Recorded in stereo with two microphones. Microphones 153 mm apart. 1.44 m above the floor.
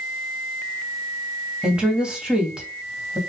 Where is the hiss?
No hiss in this recording.